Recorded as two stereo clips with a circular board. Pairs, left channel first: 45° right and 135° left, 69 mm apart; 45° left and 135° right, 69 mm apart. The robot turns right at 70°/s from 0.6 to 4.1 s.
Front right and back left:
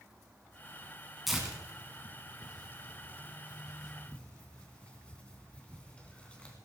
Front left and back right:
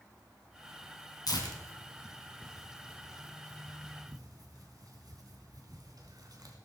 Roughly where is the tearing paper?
Ahead left.